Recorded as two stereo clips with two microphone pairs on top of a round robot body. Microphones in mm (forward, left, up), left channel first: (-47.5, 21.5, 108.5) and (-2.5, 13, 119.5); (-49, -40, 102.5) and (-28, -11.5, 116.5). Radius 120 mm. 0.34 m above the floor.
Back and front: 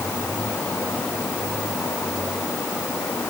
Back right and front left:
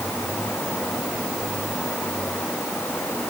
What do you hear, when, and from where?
Only background noise.